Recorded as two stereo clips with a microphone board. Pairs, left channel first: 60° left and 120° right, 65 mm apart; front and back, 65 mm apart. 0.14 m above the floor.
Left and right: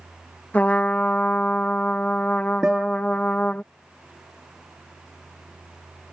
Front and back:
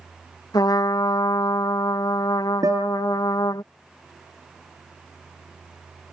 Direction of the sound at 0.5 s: 5° right.